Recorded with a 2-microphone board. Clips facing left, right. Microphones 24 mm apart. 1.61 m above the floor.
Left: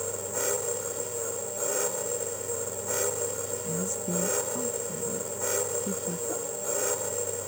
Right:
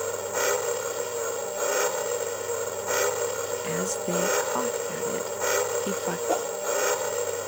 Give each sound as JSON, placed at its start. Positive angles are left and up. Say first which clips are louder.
{"t": 0.0, "sound": "an engine running", "louder": "right 5 dB", "side_deg": -35}
{"t": 3.6, "sound": "a woman speaking", "louder": "right 3 dB", "side_deg": -60}
{"t": 6.3, "sound": "a whoosh", "louder": "right 7 dB", "side_deg": -65}